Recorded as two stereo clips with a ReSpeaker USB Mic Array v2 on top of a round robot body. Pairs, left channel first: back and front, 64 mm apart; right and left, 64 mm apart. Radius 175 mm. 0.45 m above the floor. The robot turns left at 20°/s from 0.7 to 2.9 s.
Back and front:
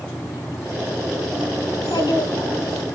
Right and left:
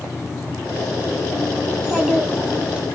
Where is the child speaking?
Straight behind, 1.4 m; by 2.9 s 160° left, 1.4 m.